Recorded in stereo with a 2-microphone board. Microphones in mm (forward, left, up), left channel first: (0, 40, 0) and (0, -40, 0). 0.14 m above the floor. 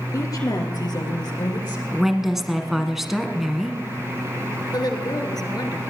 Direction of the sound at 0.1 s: 45° left (ahead or behind).